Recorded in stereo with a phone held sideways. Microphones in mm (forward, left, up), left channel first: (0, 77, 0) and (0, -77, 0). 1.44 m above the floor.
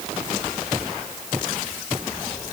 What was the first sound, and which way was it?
Only background noise.